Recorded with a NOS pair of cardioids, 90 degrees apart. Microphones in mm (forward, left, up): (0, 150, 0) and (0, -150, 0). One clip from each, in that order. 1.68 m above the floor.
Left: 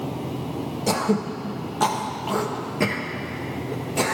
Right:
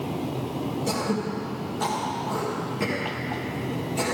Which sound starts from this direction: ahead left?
Throat clearing, at 0.9 s.